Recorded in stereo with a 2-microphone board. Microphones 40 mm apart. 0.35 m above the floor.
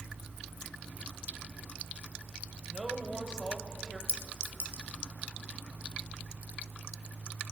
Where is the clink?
45° left (ahead or behind), 0.8 m.